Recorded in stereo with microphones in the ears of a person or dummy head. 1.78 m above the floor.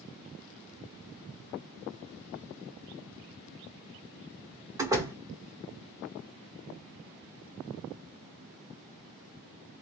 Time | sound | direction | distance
4.8 | a door slam | 15° right (ahead or behind) | 1.2 m